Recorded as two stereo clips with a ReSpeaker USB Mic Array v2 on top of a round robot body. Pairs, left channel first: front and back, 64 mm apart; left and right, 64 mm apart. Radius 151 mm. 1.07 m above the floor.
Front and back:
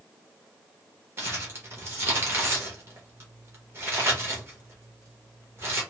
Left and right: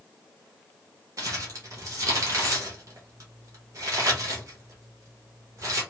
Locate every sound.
1.2 s crumpling: 130° right, 1.2 m